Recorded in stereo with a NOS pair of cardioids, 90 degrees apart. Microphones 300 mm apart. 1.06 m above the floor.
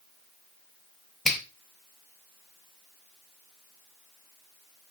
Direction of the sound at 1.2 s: Straight ahead.